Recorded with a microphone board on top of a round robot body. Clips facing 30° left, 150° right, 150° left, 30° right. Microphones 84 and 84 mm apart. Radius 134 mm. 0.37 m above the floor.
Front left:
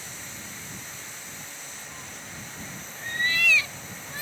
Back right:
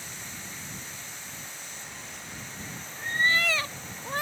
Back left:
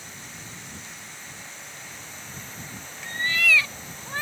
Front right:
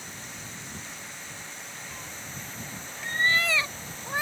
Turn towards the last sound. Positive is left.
turn(degrees=-110)